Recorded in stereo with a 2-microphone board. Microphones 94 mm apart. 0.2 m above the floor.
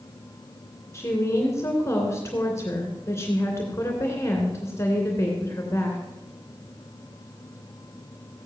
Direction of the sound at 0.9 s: 30° left (ahead or behind).